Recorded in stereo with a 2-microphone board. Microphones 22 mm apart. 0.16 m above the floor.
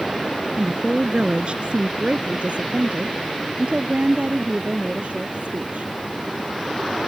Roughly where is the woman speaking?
Right.